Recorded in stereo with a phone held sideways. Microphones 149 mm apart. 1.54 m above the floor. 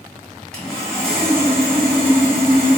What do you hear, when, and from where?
0.5 s sawing: 5° left (ahead or behind), 1.8 m